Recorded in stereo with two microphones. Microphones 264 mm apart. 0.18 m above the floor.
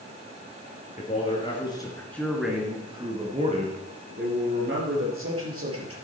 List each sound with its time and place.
1.0 s a man speaking: 30° left (ahead or behind), 3 m; by 6.0 s 60° right (ahead or behind), 4.5 m